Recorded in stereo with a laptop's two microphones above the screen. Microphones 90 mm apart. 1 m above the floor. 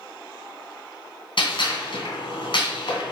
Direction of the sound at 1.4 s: 65° left (ahead or behind).